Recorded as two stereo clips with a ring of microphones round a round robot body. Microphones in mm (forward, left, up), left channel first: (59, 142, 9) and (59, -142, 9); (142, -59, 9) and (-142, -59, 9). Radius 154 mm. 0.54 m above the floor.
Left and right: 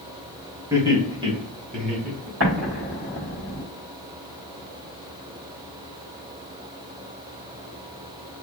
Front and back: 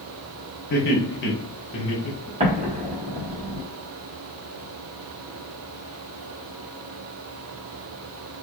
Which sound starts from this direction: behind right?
An explosion, at 2.4 s.